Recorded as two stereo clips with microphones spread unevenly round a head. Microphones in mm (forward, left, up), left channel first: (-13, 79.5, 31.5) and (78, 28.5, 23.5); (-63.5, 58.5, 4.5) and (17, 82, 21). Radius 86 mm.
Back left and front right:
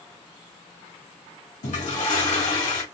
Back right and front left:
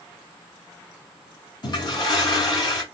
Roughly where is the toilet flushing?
Behind.